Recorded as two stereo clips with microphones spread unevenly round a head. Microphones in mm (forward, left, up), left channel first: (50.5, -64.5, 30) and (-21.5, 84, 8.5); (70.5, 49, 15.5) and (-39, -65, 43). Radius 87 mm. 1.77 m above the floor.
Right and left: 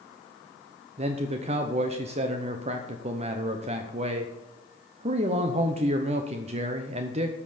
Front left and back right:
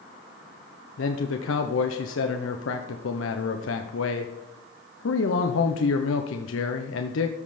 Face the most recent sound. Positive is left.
turn(degrees=60)